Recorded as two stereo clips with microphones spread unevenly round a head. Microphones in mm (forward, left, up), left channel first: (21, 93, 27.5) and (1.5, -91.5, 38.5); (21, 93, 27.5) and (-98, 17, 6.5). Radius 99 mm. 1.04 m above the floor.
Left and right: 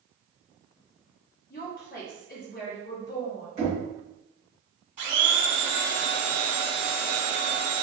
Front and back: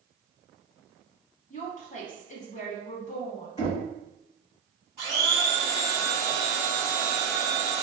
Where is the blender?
50° right, 1.6 m.